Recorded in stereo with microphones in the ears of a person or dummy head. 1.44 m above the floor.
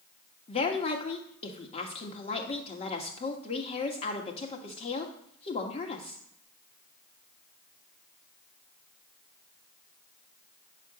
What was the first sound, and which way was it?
A woman speaking, 40° left (ahead or behind).